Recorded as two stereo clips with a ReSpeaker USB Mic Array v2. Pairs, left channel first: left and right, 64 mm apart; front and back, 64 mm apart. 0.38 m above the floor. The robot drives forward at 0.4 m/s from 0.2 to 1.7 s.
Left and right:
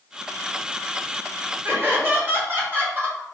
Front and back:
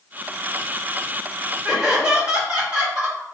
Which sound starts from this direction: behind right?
Laughter, at 1.6 s.